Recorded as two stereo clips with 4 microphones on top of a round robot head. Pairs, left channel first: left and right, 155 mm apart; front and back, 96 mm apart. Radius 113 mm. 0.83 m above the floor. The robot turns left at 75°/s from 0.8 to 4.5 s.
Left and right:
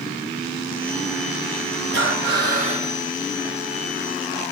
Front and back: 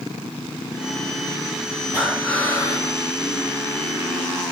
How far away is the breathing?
About 1.7 m.